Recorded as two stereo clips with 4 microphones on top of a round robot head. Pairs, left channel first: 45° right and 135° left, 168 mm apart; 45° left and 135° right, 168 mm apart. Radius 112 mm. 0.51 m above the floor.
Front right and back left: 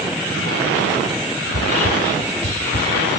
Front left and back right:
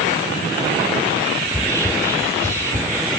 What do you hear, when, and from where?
1.5 s whispering: 70° right, 1.3 m